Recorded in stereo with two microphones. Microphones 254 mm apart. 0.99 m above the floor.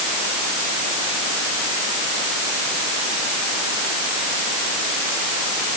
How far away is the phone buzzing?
No phone buzzing in this recording.